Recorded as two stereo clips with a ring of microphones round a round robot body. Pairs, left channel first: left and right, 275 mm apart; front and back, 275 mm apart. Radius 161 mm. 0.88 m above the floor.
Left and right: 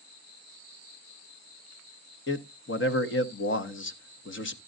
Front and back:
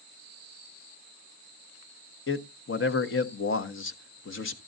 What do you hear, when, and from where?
2.3 s a man speaking: 45° left, 1.3 m